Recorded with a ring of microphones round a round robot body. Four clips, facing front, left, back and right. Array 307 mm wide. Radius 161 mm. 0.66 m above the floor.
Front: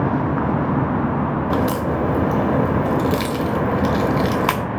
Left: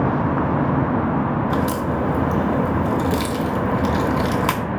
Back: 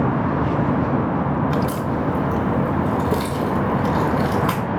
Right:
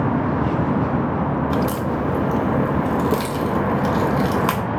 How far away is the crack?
About 0.6 m.